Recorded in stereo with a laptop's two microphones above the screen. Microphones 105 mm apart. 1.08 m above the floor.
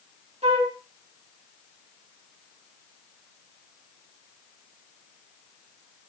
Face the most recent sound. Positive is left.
turn(degrees=-70)  # may be behind; listen again after turning